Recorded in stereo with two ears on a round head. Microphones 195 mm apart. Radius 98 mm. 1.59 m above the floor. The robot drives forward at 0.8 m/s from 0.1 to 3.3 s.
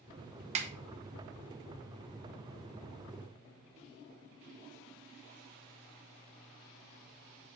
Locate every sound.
0.6 s a snare drum: 30° right (ahead or behind), 0.8 m